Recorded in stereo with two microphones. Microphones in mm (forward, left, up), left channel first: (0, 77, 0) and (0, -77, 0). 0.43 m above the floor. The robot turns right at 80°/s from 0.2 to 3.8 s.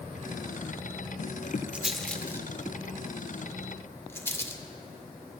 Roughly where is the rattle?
Centre.